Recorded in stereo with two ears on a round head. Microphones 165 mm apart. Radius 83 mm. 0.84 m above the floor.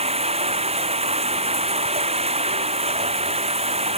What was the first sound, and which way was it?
Running water, 35° right (ahead or behind).